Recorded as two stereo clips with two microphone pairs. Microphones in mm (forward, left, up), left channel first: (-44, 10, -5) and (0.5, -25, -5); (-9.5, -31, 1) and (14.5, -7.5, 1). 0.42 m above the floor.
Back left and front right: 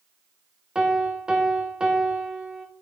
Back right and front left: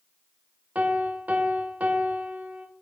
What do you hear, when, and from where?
0.8 s a piano: 35° left, 1.1 m